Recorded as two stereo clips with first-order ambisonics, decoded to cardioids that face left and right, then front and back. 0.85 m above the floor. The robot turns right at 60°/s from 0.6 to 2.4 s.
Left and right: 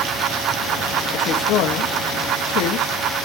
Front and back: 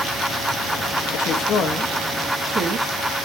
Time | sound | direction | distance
1.1 | a woman speaking | 35° left | 0.9 m